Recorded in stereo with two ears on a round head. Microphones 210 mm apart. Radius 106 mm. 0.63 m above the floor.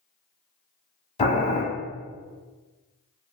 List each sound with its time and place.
1.2 s boiling: 30° left (ahead or behind), 1.0 m